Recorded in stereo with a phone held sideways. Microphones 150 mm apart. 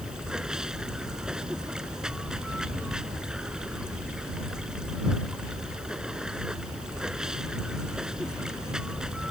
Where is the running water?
5° right (ahead or behind).